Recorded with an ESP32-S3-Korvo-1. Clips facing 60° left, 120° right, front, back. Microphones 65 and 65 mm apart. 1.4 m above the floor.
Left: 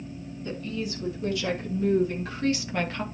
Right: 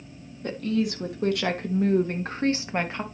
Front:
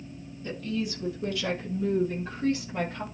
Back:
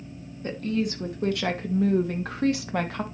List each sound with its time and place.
0.4 s a woman speaking: 140° right, 2.5 m; by 3.0 s 165° left, 1.4 m